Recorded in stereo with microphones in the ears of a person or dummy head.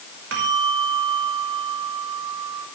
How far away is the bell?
About 5 m.